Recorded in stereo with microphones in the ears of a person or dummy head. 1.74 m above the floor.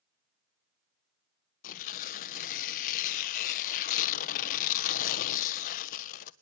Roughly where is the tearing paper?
Left.